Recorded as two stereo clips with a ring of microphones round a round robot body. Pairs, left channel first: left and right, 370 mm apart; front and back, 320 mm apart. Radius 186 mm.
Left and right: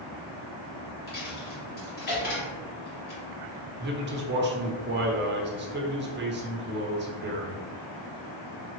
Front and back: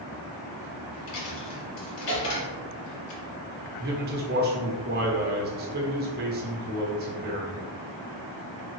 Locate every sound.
1.1 s a dropped coin: 25° left, 2 m
3.8 s a man speaking: 135° right, 1.0 m